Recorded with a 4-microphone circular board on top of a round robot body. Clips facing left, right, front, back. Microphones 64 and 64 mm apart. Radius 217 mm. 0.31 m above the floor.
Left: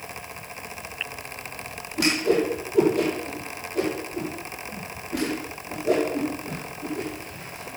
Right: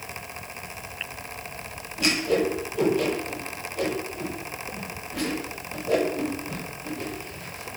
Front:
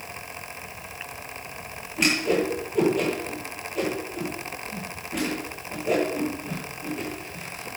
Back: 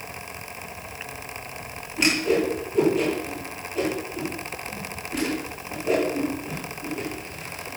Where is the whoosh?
90° left, 9 m.